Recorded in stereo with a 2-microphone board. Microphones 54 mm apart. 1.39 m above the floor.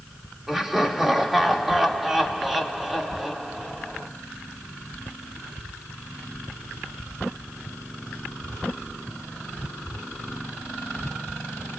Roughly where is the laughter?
Centre.